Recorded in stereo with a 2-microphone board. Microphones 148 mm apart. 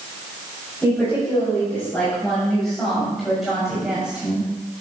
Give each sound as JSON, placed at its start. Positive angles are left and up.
{"t": 0.8, "sound": "a woman speaking", "side_deg": 15, "distance_m": 6.0}